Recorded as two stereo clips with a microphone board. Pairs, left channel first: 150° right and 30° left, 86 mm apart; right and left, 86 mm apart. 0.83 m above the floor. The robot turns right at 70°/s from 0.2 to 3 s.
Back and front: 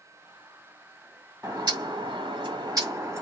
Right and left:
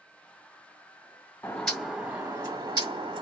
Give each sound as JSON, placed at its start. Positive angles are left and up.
{"t": 1.4, "sound": "a bird", "azimuth_deg": -20, "distance_m": 1.6}